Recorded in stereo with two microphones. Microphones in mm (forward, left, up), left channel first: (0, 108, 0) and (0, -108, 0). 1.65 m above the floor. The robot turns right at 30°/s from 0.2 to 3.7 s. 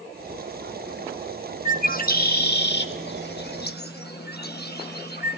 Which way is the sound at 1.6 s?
35° left (ahead or behind).